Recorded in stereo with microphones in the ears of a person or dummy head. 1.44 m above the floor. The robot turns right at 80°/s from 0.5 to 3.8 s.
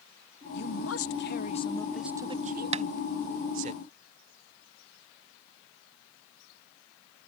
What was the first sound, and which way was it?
A man speaking, 60° left.